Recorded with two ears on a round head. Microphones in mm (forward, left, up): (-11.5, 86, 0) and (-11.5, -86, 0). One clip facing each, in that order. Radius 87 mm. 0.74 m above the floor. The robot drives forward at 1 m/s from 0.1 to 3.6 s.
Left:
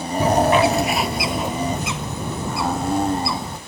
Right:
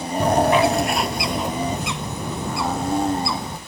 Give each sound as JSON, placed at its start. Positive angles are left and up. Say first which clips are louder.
{"t": 0.2, "sound": "a bird", "louder": "left 1 dB", "side_deg": 5}